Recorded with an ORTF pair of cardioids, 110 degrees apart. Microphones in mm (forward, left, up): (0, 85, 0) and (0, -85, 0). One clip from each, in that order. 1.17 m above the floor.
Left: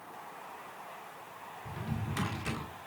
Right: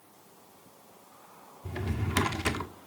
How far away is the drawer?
About 1.7 m.